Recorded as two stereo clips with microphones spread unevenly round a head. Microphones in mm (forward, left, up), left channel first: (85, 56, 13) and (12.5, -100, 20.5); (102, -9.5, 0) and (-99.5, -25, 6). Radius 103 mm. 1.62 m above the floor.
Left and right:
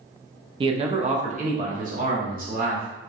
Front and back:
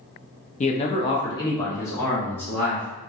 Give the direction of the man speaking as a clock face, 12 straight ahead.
2 o'clock.